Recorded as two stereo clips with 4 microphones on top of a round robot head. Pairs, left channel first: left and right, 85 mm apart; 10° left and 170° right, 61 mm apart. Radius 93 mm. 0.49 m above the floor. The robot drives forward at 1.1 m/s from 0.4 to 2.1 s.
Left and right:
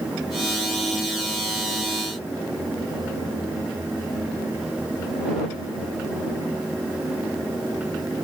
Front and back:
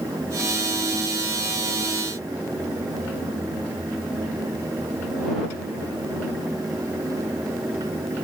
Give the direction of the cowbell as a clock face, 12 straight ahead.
No cowbell in this recording.